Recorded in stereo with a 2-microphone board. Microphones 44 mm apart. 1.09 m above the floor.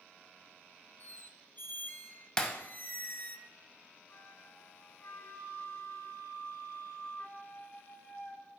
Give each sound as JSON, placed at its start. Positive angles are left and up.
{"t": 1.0, "sound": "a squeak", "side_deg": 45, "distance_m": 0.5}
{"t": 2.4, "sound": "breaking glass", "side_deg": 15, "distance_m": 1.2}
{"t": 4.1, "sound": "a flute", "side_deg": 65, "distance_m": 1.5}